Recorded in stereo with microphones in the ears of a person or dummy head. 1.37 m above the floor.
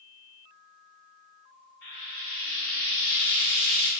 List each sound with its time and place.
1.8 s frying: 55° left (ahead or behind), 0.9 m